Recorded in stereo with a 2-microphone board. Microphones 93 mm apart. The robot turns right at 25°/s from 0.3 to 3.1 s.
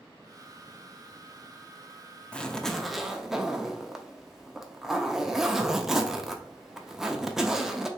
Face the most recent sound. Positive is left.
turn(degrees=-5)  # may be behind; listen again after turning